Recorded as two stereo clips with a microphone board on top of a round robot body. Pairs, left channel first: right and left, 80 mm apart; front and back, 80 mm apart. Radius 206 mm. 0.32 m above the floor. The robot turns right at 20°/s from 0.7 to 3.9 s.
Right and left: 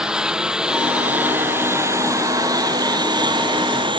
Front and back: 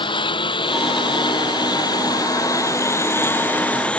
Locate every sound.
0.0 s a lawn mower: 10° left; by 4.0 s 75° left